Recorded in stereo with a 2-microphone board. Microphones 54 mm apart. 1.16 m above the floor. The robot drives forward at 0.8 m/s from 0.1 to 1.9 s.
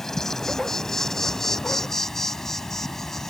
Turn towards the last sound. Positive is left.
turn(degrees=5)  # may be behind; listen again after turning